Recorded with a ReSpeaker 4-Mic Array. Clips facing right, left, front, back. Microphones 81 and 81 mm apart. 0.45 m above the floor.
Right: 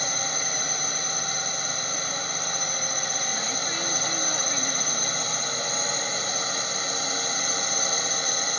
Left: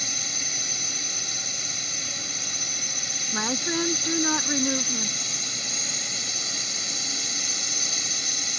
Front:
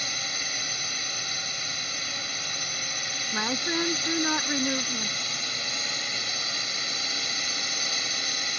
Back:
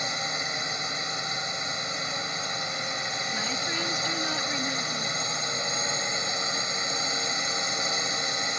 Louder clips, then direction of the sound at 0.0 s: Right 7 dB, back 4 dB; 120° right.